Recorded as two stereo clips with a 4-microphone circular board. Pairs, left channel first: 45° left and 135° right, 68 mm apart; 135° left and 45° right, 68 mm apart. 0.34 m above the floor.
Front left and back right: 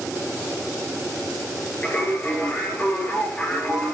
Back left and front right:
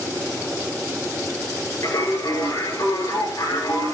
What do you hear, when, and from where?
1.8 s singing: 115° left, 7.5 m